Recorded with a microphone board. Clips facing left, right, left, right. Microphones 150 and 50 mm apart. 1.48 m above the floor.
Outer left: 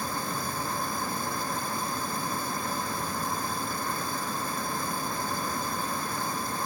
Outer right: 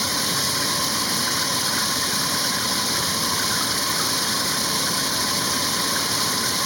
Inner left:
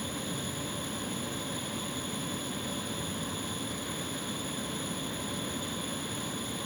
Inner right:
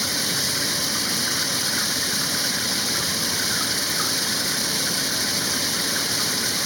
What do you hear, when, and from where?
0.0 s running water: 80° right